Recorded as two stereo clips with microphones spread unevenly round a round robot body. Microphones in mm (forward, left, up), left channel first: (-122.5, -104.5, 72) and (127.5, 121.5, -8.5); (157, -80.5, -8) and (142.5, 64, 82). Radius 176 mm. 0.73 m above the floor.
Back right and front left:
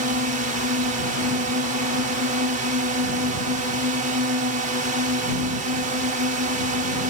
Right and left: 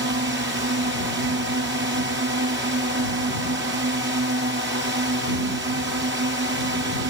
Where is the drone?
90° left.